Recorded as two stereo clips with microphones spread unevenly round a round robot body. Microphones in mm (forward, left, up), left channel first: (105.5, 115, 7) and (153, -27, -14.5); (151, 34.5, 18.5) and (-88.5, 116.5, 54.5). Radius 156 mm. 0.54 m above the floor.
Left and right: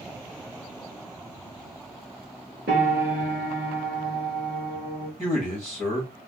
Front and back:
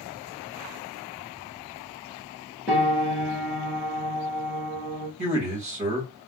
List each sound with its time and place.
2.7 s a piano: 115° right, 1.7 m
5.2 s a man speaking: 130° right, 1.9 m